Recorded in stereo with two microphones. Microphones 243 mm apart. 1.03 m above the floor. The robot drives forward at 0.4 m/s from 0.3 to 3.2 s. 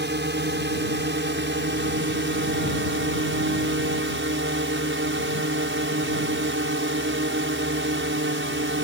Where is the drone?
45° right (ahead or behind); by 8.8 s 55° right (ahead or behind).